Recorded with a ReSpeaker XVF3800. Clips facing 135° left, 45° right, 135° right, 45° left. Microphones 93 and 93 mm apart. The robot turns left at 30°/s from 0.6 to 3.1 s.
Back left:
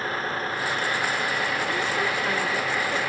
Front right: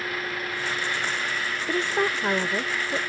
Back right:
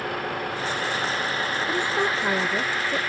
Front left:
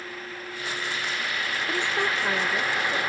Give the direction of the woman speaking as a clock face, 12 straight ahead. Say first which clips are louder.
Front right 1 dB, back right 2 dB; 2 o'clock.